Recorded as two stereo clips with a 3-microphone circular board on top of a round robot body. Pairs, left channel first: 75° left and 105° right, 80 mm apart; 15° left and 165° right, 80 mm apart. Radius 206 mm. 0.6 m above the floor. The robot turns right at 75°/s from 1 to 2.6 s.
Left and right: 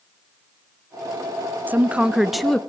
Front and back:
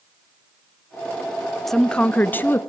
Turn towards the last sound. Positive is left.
turn(degrees=0)